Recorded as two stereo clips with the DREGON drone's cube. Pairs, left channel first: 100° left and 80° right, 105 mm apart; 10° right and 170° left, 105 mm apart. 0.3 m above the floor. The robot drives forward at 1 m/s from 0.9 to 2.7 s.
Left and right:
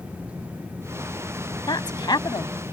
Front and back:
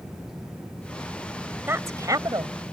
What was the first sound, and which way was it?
A woman speaking, 110° left.